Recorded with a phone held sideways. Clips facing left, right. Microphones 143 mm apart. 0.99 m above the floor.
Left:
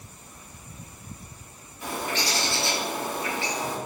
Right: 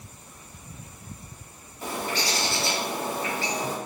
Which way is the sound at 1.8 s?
40° right (ahead or behind).